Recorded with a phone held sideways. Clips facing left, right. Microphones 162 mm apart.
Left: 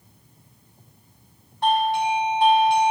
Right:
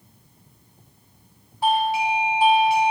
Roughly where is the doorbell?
Centre.